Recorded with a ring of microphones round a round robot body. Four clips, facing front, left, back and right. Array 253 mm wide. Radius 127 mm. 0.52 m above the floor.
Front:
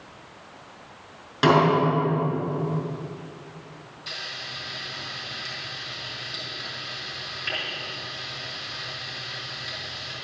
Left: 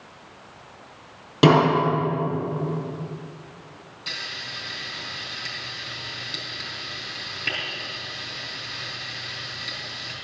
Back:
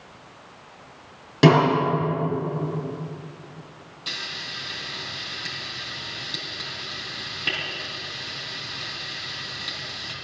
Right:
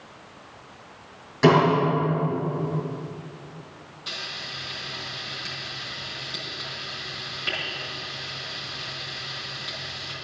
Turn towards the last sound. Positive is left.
turn(degrees=150)